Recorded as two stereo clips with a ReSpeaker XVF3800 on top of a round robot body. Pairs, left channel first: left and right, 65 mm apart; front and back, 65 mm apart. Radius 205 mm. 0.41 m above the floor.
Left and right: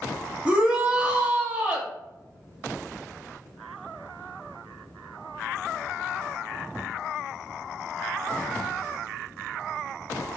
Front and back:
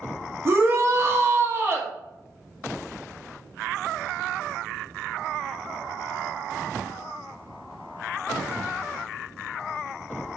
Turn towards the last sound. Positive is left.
turn(degrees=-155)